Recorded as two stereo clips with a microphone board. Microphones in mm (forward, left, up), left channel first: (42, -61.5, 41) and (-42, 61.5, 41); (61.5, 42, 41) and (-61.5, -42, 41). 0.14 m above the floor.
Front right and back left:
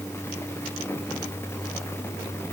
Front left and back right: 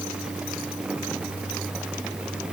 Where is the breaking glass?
No breaking glass in this recording.